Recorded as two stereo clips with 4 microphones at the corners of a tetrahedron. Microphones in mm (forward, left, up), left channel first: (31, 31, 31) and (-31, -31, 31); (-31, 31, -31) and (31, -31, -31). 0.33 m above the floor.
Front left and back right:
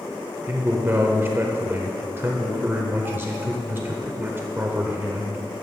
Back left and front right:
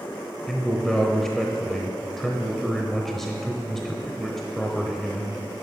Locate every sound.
0.5 s a man speaking: 145° right, 0.9 m